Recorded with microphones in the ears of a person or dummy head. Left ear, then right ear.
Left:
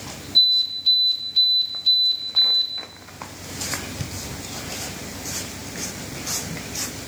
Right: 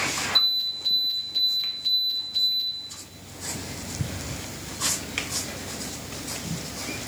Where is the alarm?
55° right (ahead or behind), 3.5 m.